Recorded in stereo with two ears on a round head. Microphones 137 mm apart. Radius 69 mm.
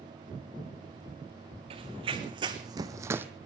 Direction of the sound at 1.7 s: 35° right (ahead or behind).